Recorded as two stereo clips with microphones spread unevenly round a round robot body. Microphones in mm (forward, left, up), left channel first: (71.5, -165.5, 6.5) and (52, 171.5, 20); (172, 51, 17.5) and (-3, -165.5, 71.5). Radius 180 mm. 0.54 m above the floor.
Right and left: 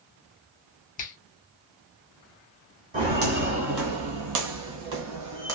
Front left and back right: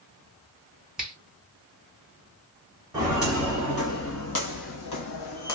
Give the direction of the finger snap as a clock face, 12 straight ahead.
1 o'clock.